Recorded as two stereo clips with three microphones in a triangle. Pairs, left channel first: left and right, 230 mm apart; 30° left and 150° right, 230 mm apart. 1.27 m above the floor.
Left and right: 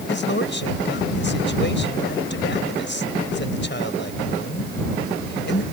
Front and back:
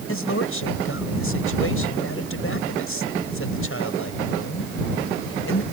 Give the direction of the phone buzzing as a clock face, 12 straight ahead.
I don't hear a phone buzzing.